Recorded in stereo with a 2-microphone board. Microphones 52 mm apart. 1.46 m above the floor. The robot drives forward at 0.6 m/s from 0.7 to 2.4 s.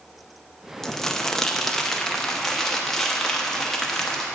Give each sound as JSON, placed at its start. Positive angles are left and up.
{"t": 0.8, "sound": "crumpling", "side_deg": 10, "distance_m": 0.7}